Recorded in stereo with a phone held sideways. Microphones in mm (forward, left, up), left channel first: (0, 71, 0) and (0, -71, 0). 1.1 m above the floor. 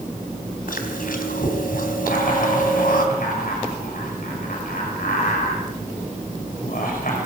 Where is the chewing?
80° left, 3.5 m.